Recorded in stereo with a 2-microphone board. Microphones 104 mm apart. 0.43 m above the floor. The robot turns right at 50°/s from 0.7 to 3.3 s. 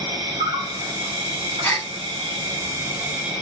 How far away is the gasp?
About 1.5 m.